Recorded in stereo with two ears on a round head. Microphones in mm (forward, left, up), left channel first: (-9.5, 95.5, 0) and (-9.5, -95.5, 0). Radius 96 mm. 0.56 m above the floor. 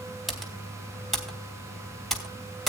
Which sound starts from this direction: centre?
Typing on a keyboard, at 0.3 s.